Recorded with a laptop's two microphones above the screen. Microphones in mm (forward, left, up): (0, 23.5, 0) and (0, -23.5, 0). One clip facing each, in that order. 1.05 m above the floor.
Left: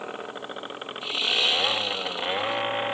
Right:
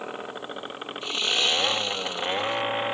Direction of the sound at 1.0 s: 5° left (ahead or behind).